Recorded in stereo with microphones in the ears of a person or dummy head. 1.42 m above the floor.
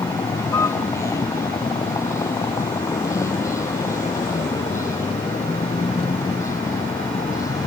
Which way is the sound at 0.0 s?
20° left (ahead or behind).